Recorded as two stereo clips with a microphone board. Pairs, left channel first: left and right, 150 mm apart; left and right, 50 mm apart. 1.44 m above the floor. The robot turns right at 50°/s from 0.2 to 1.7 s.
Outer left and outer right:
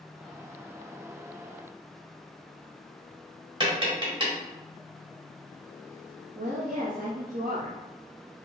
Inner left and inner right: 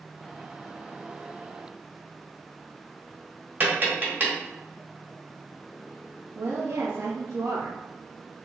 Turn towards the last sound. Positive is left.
turn(degrees=-75)  # may be behind; listen again after turning